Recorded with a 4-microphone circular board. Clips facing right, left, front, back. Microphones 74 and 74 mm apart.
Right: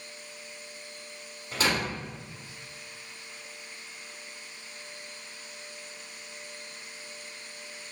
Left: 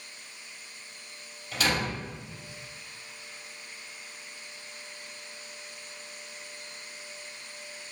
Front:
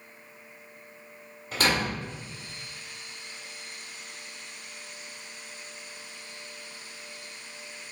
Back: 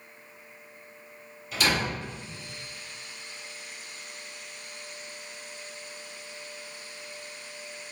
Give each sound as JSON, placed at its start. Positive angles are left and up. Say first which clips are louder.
{"t": 1.5, "sound": "a door slam", "louder": "even, front 1 dB", "azimuth_deg": -40, "distance_m": 1.8}